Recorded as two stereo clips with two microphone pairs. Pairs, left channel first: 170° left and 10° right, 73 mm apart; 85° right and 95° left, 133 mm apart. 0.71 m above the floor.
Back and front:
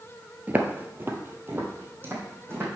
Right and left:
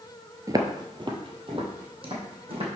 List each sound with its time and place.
0.5 s footsteps: 45° left, 0.8 m; by 2.7 s 50° left, 2.5 m